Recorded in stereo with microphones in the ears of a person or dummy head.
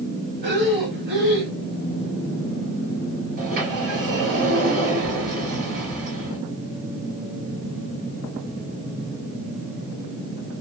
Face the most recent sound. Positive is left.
turn(degrees=-50)  # may be behind; listen again after turning